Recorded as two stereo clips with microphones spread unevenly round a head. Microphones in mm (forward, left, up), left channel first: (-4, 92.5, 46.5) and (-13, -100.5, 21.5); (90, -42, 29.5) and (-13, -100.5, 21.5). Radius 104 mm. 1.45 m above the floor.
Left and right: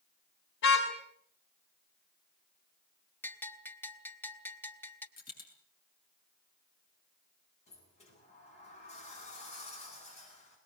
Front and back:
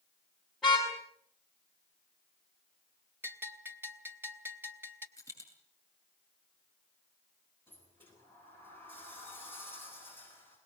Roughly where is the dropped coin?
Behind left.